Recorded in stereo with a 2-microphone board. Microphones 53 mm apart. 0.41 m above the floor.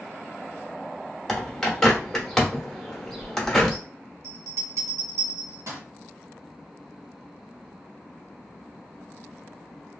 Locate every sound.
1.3 s a bird: 10° left (ahead or behind), 0.9 m
4.2 s a bell: 70° right (ahead or behind), 1.5 m